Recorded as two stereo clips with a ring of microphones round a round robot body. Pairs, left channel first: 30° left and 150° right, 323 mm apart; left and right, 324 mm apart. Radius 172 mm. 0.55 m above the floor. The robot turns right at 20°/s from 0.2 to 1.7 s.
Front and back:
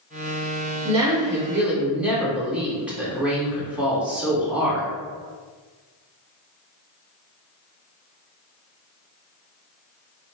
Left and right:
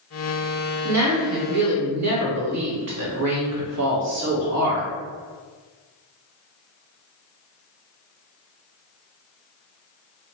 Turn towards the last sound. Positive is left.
turn(degrees=-65)